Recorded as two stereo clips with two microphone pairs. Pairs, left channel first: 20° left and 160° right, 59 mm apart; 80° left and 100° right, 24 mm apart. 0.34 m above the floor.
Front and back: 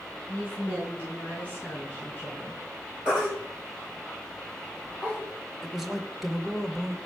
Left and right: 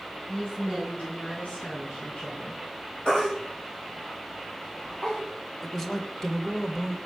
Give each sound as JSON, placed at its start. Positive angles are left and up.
{"t": 0.3, "sound": "a woman speaking", "azimuth_deg": 80, "distance_m": 3.5}
{"t": 3.0, "sound": "a baby crying", "azimuth_deg": 125, "distance_m": 4.5}
{"t": 5.6, "sound": "a man speaking", "azimuth_deg": 115, "distance_m": 0.9}